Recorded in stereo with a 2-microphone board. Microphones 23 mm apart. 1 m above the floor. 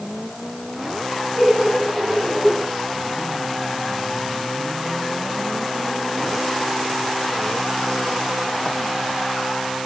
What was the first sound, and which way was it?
Laughter, 20° right (ahead or behind).